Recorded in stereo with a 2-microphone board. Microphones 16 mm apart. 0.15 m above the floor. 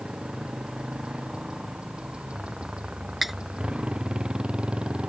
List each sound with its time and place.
0.0 s a motorcycle: 80° right; by 5.1 s 85° right
3.2 s cutlery clinking: 15° right (ahead or behind)